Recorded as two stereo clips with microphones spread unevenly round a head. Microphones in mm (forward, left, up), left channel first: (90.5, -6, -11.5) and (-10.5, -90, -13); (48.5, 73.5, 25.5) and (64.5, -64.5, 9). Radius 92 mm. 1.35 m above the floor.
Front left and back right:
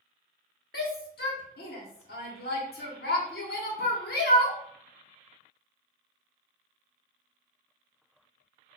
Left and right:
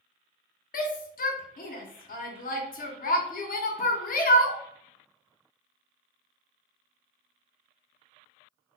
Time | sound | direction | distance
0.7 | a shout | 75° left | 0.6 m